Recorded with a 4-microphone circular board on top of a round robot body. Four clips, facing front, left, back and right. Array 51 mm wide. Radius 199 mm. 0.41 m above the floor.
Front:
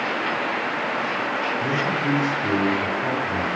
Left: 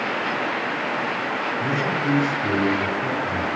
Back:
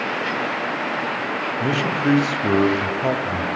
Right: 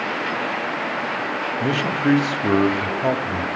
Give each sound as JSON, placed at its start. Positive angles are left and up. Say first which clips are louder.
{"t": 1.6, "sound": "a man speaking", "louder": "right 4 dB, back 2 dB", "azimuth_deg": -125, "distance_m": 2.5}